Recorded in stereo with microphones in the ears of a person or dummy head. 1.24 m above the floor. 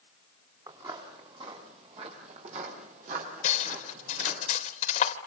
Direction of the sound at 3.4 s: 45° left (ahead or behind).